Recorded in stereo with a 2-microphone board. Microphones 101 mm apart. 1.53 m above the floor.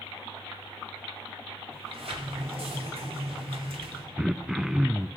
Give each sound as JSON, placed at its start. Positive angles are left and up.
{"t": 1.7, "sound": "a sliding door", "side_deg": -70, "distance_m": 2.5}
{"t": 4.2, "sound": "throat clearing", "side_deg": -5, "distance_m": 0.6}